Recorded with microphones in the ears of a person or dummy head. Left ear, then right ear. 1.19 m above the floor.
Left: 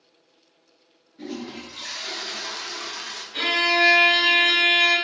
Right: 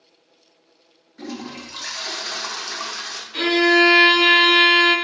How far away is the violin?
About 1.3 m.